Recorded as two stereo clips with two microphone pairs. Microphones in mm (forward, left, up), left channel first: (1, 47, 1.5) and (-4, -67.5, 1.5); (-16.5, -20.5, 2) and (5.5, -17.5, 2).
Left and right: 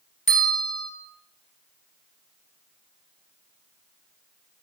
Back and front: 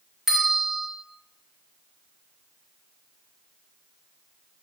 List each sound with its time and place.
0.3 s a bell: 70° left, 0.6 m